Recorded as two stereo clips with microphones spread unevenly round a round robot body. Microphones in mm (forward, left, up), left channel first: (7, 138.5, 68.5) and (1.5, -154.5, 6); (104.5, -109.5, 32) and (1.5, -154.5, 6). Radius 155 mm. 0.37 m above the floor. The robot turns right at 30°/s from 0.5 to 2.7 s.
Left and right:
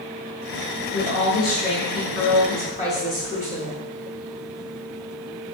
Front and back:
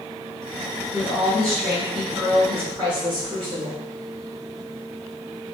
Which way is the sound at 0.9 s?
85° left.